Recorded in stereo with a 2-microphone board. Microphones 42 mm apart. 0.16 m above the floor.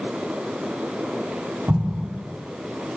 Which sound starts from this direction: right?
An explosion, at 1.7 s.